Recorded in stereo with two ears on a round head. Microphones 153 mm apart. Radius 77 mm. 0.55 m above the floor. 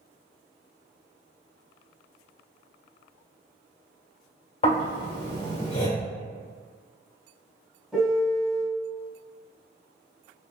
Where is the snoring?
40° left (ahead or behind), 1.6 m.